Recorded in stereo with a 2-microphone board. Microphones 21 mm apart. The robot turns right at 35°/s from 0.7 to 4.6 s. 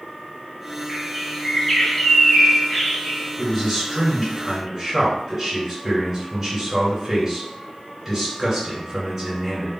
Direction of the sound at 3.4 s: 155° left.